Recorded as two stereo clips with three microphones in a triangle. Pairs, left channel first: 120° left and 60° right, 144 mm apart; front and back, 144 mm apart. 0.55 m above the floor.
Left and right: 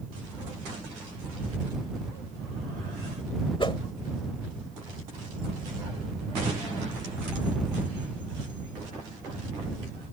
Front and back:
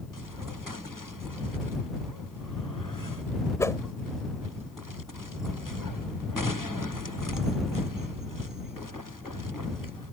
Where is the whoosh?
70° left.